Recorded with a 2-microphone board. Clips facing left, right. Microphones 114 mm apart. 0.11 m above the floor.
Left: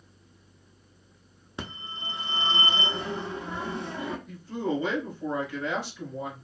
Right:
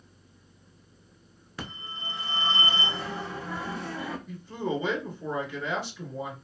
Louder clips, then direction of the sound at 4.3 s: Left 1 dB; centre (ahead or behind).